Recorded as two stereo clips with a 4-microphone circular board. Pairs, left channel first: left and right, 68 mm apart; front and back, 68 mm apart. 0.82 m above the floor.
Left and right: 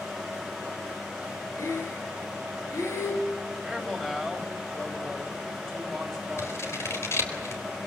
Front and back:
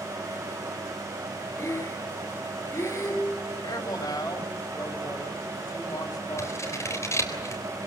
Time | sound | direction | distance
1.6 | breathing | 45° left | 5 m
3.6 | a man speaking | 5° left | 4 m
6.4 | scissors | 45° left | 4 m